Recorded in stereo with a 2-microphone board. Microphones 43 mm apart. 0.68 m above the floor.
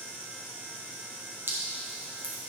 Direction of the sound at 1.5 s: 65° right (ahead or behind).